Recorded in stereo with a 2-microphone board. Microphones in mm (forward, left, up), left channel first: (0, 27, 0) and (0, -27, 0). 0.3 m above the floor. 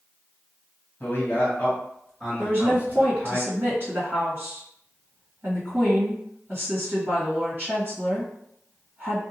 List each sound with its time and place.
1.0 s a man speaking: 35° left (ahead or behind), 1.5 m; by 3.4 s 40° right (ahead or behind), 1.9 m
2.4 s a woman speaking: 45° right (ahead or behind), 1.7 m